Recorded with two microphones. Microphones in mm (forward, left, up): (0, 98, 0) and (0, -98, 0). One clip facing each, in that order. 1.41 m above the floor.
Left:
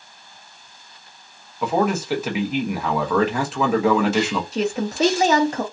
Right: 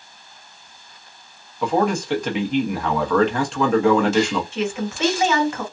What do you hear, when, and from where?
1.6 s a man speaking: 5° left (ahead or behind), 1.0 m
4.5 s a woman speaking: 40° left (ahead or behind), 0.9 m